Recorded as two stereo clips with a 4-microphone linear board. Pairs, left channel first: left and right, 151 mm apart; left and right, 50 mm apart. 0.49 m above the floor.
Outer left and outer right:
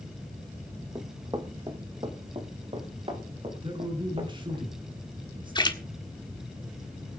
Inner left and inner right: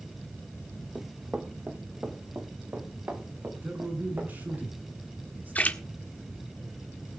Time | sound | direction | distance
0.9 | running footsteps | 25° right (ahead or behind) | 1.7 m
3.6 | a man speaking | 35° right (ahead or behind) | 6 m
5.5 | a splash | 30° left (ahead or behind) | 1.5 m